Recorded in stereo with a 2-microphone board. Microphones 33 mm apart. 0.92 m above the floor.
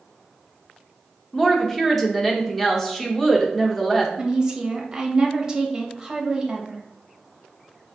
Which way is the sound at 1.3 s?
10° left (ahead or behind).